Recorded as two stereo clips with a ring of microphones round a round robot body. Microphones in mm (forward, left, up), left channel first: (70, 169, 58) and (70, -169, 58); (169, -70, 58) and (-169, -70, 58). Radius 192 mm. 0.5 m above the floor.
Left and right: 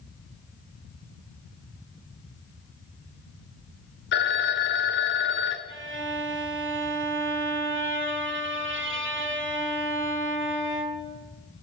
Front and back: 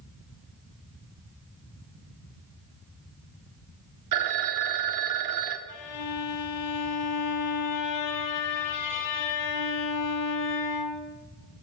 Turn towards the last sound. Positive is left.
turn(degrees=-35)